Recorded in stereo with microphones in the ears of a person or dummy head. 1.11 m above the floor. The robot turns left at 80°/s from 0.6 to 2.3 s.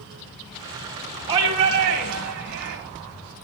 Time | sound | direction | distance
1.3 | a shout | 35° right | 3 m